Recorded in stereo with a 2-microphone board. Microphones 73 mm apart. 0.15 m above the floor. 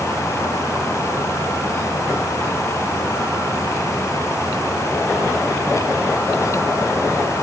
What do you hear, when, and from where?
Only background noise.